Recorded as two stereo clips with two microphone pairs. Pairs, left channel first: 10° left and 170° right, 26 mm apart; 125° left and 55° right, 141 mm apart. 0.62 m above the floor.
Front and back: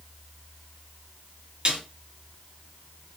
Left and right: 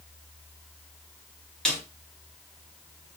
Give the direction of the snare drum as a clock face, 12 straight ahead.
5 o'clock.